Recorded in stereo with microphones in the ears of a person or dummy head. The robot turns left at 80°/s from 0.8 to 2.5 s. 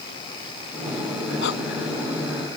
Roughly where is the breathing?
Left.